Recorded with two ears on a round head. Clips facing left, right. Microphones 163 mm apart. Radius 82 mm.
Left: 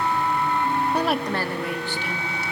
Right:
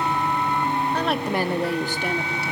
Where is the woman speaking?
10° left (ahead or behind), 0.7 m; by 2.5 s 50° right (ahead or behind), 1.3 m.